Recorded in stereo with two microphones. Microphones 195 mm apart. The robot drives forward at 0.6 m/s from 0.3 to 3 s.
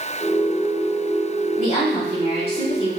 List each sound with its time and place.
1.6 s a woman speaking: 40° left (ahead or behind), 1.8 m; by 2.9 s 30° left (ahead or behind), 2.5 m